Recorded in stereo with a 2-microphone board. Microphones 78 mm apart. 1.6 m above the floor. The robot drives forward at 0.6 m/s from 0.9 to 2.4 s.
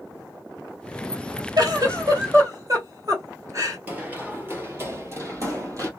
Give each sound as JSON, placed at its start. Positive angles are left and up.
{"t": 1.6, "sound": "a giggle", "side_deg": -55, "distance_m": 1.8}
{"t": 3.9, "sound": "running footsteps", "side_deg": -20, "distance_m": 2.0}